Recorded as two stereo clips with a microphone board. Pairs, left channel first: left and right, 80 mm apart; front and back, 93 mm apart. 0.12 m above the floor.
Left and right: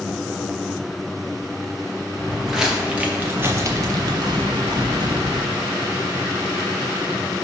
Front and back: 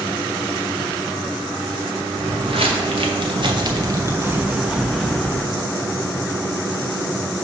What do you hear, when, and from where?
2.2 s footsteps: straight behind, 1.6 m; by 5.5 s 80° right, 1.5 m